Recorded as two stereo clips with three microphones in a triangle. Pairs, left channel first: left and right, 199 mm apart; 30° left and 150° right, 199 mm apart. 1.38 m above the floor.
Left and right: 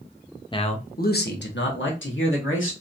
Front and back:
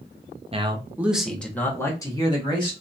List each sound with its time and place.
0.5 s a man speaking: 155° left, 0.7 m; by 2.7 s 95° left, 1.8 m